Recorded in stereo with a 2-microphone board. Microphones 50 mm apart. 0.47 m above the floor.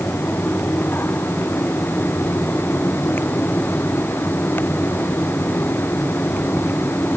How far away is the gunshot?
No gunshot in this recording.